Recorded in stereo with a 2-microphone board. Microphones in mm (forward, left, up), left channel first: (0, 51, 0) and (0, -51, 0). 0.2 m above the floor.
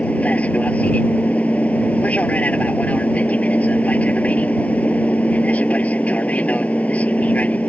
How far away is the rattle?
I don't hear a rattle.